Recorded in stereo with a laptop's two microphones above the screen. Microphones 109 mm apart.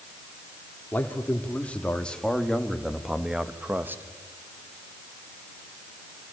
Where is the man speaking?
15° left (ahead or behind), 3.5 m; by 4.0 s 20° right (ahead or behind), 1.5 m.